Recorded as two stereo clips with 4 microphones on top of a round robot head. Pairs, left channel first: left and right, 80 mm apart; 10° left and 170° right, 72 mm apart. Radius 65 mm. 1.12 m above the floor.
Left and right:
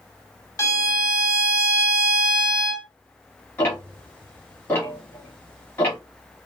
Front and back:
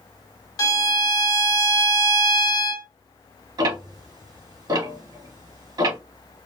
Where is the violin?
40° left, 1.1 m.